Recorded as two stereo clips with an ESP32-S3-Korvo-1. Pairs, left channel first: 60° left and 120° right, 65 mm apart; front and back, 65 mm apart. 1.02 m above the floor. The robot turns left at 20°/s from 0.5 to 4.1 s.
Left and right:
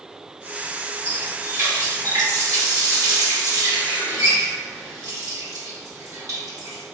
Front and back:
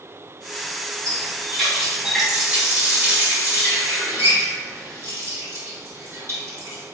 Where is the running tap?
80° right, 2.0 m; by 6.8 s 140° right, 2.0 m.